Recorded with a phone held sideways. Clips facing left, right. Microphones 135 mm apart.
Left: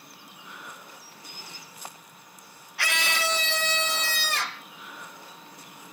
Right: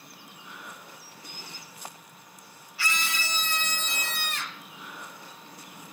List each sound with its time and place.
2.8 s a scream: 65° left (ahead or behind); by 4.7 s 75° left (ahead or behind)